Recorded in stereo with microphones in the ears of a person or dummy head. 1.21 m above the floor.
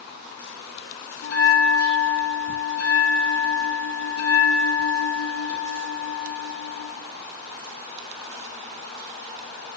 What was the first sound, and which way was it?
A bell, 75° left (ahead or behind).